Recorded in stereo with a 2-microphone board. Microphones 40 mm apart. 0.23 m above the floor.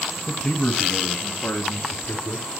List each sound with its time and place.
0.3 s a man speaking: 20° left (ahead or behind), 1.1 m; by 2.5 s 55° left (ahead or behind), 1.9 m